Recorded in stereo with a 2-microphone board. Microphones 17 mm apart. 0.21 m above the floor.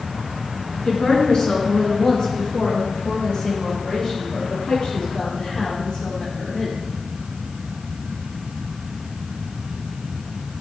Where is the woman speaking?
55° left (ahead or behind), 2.5 m; by 6.8 s 80° left, 7 m.